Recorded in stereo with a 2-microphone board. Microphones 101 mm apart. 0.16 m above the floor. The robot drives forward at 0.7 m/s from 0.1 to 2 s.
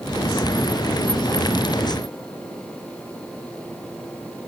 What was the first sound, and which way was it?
Only background noise.